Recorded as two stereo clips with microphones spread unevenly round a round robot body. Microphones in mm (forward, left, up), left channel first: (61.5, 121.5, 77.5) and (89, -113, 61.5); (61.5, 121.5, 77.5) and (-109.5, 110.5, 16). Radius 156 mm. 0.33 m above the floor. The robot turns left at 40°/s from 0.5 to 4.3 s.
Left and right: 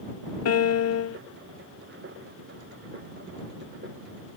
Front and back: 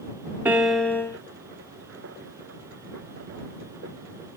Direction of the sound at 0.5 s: 110° left.